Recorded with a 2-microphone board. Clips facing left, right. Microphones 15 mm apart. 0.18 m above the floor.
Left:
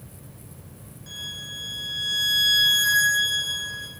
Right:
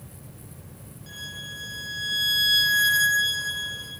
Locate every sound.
1.1 s a violin: centre (ahead or behind), 4 m